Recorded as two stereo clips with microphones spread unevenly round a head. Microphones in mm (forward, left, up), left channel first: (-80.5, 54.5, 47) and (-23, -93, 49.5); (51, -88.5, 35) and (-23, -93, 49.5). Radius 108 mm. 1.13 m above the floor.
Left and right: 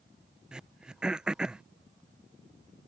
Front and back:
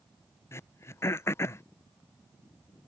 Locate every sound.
0.5 s throat clearing: 15° left